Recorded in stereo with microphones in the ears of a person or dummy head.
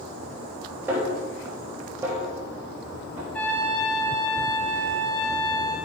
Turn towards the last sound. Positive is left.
turn(degrees=5)  # may be behind; listen again after turning